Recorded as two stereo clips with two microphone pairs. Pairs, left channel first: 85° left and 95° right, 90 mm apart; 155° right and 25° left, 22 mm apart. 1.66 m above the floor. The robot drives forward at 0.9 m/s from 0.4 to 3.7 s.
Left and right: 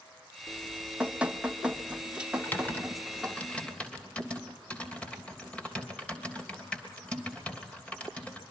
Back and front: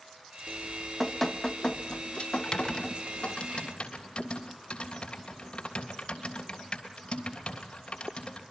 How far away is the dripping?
About 1.0 m.